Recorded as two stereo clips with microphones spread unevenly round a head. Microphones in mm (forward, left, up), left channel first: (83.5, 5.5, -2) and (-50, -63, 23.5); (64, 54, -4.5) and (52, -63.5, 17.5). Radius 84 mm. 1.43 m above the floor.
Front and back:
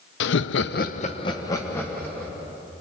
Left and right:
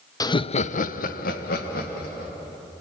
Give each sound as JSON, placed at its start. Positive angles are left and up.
{"t": 0.2, "sound": "laughter", "azimuth_deg": 20, "distance_m": 0.8}